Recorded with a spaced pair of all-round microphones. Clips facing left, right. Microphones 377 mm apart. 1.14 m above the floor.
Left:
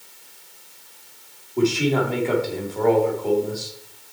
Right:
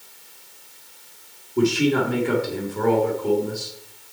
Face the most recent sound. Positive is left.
turn(degrees=-25)  # may be behind; listen again after turning